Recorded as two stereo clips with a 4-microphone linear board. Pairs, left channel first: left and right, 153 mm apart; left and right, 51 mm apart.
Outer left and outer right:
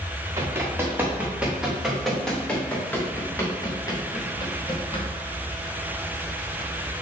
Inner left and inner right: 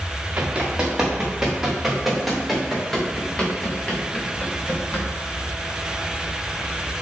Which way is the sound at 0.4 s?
15° right (ahead or behind).